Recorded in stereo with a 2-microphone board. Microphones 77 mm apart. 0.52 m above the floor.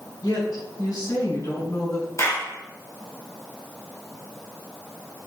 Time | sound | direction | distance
0.2 | a woman speaking | 55° left (ahead or behind) | 4 m
2.2 | a clap | 40° left (ahead or behind) | 3 m